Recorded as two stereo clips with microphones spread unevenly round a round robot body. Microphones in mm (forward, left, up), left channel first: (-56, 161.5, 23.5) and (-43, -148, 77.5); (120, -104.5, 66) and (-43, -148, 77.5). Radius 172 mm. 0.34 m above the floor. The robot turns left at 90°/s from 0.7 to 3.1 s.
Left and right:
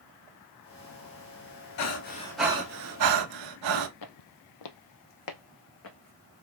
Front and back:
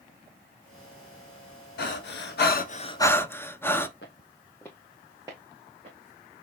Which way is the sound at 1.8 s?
55° left.